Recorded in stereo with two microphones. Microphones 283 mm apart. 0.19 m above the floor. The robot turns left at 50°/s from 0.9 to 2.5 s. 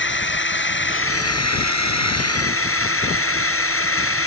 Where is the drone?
135° left; by 4.3 s 55° left.